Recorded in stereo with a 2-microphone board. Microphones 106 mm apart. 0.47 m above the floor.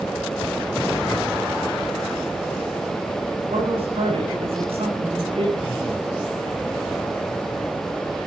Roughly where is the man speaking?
Right.